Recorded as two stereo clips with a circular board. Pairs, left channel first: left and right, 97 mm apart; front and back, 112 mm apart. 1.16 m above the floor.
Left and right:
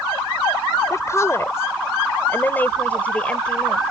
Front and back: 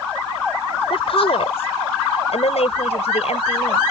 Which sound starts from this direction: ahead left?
A woman speaking, at 0.9 s.